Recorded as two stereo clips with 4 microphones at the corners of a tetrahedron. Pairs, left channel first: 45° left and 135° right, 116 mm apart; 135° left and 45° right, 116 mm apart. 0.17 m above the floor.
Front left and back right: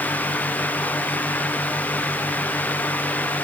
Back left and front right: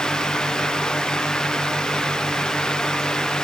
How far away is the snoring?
No snoring in this recording.